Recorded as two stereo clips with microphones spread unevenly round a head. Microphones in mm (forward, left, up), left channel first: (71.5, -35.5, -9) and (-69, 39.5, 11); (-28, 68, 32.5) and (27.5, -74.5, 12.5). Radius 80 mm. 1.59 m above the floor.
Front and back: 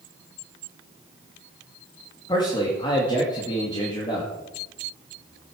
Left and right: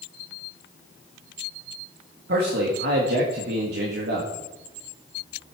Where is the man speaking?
95° right, 2 m.